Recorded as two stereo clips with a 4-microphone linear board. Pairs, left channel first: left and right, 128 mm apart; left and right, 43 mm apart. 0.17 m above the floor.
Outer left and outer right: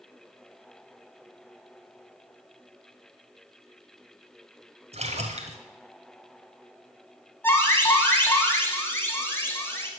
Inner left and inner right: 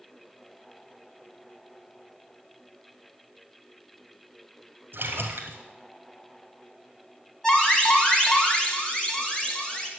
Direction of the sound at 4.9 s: 60° right (ahead or behind).